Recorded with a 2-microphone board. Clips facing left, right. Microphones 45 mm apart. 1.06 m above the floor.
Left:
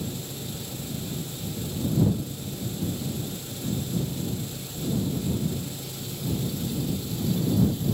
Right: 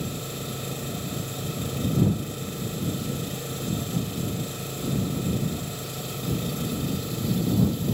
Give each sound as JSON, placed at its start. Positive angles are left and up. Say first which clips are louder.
{"t": 0.0, "sound": "an engine running", "louder": "right 2 dB", "side_deg": -55}